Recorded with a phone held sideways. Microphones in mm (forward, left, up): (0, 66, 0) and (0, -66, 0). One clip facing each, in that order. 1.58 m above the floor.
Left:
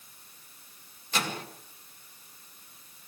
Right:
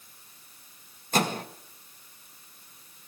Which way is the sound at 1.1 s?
45° right (ahead or behind).